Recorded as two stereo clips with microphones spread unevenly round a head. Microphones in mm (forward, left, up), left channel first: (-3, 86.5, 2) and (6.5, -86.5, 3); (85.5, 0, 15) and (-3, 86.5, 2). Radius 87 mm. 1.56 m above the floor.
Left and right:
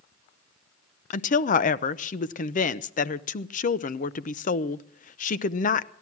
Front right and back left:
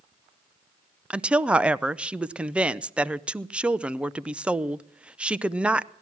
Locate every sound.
1.1 s a woman speaking: 50° left, 0.6 m